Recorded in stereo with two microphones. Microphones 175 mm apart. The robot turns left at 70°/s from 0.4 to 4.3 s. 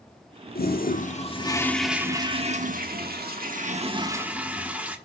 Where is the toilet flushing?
90° left, 1.2 m; by 5.0 s 170° right, 1.2 m.